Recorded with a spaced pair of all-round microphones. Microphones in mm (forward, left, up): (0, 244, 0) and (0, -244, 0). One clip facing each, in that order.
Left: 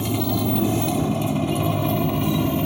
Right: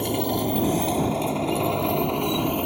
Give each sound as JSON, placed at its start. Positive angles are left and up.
{"t": 0.0, "sound": "a motorcycle", "side_deg": 25}